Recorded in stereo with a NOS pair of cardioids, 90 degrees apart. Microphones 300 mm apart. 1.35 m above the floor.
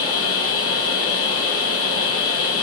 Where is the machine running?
50° left, 1.1 m.